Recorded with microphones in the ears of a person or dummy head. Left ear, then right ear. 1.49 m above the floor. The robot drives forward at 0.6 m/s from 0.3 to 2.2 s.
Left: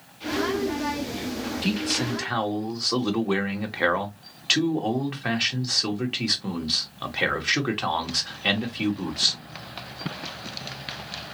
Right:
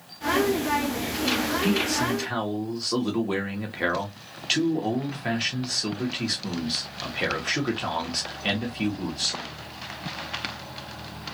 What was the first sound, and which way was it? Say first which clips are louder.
A man speaking: right 2 dB; 35° left (ahead or behind).